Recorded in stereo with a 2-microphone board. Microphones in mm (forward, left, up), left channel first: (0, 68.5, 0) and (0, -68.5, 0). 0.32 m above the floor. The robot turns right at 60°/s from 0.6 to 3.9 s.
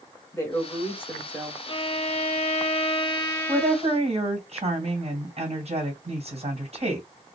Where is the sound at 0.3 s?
20° left (ahead or behind), 1.3 m; by 1.6 s centre (ahead or behind), 1.3 m.